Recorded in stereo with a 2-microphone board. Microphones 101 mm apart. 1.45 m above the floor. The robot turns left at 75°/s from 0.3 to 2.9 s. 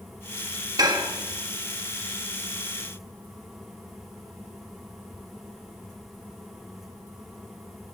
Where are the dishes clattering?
40° right (ahead or behind), 1.3 m; by 1.1 s 55° right (ahead or behind), 1.3 m.